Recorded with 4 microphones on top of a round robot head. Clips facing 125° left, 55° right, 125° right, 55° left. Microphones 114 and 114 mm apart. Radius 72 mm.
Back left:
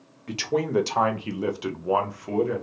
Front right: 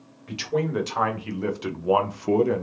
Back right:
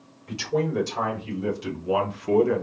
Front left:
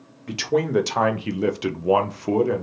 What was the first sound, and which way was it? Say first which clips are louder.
A man speaking: back left 1 dB, front left 4 dB; 80° left.